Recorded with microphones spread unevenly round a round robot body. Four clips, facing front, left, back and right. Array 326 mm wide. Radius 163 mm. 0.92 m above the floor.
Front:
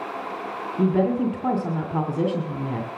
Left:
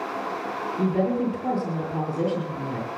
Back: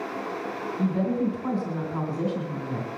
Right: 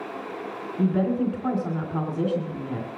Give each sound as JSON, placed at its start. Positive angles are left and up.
{"t": 0.8, "sound": "a woman speaking", "azimuth_deg": 5, "distance_m": 2.5}